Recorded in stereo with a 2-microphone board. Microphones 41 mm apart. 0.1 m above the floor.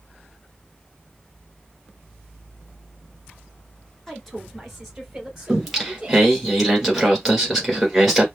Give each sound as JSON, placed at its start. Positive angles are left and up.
{"t": 4.1, "sound": "a woman speaking", "side_deg": 10, "distance_m": 1.3}
{"t": 5.5, "sound": "singing", "side_deg": 0, "distance_m": 1.6}